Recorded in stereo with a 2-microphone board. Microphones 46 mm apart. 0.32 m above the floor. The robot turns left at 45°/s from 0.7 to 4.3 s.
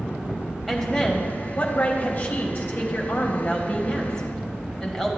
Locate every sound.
0.7 s a woman speaking: straight behind, 1.5 m; by 5.1 s 20° left, 1.5 m